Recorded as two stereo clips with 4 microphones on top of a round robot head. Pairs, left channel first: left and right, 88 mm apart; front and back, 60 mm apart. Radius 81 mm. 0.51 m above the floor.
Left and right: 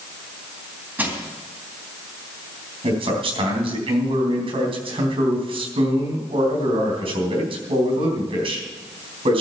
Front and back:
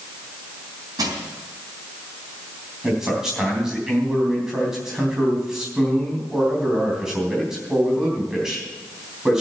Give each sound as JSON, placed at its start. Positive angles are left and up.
{"t": 1.0, "sound": "crushing", "azimuth_deg": -155, "distance_m": 3.0}
{"t": 2.8, "sound": "a man speaking", "azimuth_deg": -100, "distance_m": 3.5}